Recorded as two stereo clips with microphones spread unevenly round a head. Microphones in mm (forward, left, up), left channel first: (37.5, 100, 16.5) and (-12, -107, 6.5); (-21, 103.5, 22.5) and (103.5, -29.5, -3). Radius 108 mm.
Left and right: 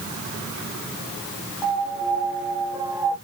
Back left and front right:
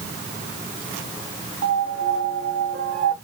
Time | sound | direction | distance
1.6 | a piano | 20° right | 2.0 m